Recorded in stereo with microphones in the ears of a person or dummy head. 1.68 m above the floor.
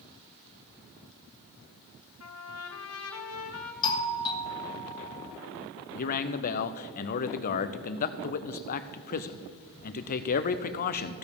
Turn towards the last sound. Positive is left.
turn(degrees=45)  # may be behind; listen again after turning